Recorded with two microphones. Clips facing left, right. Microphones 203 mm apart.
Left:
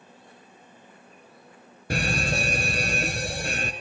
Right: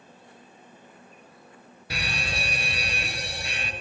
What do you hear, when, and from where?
1.9 s a fire alarm: 50° left (ahead or behind), 3 m